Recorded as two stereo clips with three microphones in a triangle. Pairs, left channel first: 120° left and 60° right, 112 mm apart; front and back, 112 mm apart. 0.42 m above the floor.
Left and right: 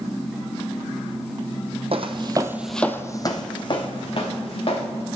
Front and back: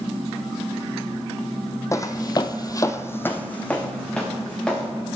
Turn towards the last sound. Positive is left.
turn(degrees=85)